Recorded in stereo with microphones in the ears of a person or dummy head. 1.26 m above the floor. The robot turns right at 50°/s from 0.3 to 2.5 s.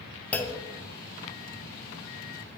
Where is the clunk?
10° left (ahead or behind), 0.5 m; by 0.7 s 25° left (ahead or behind), 0.5 m.